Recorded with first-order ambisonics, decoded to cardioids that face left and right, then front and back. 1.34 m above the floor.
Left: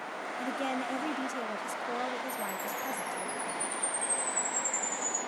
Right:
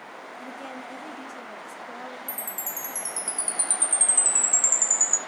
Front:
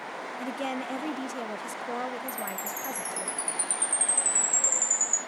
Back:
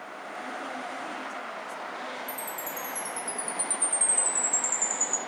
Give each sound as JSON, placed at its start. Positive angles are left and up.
{"t": 0.4, "sound": "a woman speaking", "azimuth_deg": 30, "distance_m": 0.9}
{"t": 2.3, "sound": "a chime", "azimuth_deg": -75, "distance_m": 1.5}